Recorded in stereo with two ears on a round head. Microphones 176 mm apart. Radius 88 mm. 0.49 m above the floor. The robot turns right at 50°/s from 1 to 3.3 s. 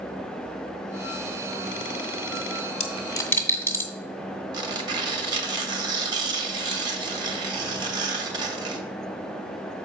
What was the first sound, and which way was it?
A dropped coin, 35° left (ahead or behind).